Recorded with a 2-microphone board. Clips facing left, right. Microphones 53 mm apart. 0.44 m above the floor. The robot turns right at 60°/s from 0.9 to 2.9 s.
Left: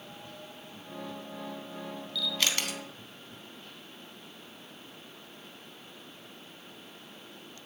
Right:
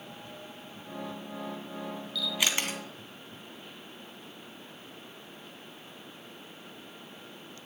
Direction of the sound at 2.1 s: Centre (ahead or behind).